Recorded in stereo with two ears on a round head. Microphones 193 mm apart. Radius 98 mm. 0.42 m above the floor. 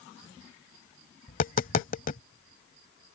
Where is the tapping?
40° left (ahead or behind).